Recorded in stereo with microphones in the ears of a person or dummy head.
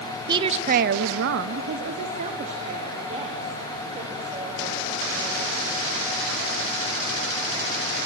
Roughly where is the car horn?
I don't hear a car horn.